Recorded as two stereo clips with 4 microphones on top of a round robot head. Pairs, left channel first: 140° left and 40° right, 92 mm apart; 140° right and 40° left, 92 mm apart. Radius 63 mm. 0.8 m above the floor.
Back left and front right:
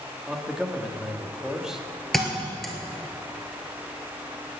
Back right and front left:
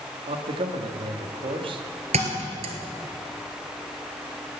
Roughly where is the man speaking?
Ahead left.